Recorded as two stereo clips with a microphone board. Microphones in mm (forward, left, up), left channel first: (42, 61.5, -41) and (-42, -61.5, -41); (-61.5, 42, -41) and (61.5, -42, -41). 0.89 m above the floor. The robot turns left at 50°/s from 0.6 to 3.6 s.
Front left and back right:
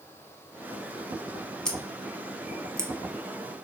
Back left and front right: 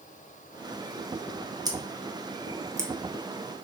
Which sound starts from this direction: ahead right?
Scissors, at 1.6 s.